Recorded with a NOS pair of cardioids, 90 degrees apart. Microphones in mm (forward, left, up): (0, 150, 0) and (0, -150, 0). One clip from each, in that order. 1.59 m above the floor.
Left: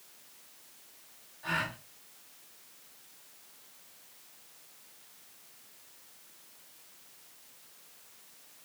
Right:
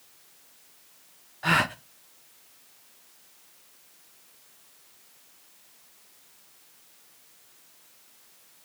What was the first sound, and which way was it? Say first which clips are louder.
A gasp: right 10 dB; 70° right.